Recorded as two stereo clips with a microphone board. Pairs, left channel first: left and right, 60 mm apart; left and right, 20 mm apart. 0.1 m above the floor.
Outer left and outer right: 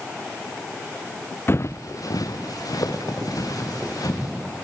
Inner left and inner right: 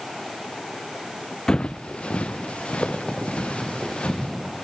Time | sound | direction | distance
1.5 | footsteps | 40° left (ahead or behind) | 0.6 m